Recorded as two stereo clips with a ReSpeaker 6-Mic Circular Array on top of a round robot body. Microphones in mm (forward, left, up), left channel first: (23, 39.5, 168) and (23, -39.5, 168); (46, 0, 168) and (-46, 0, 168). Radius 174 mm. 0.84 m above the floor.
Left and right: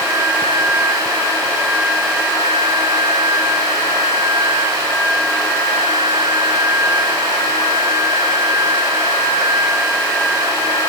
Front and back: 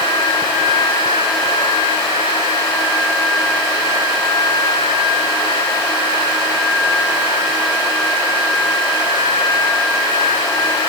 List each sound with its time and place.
Only background noise.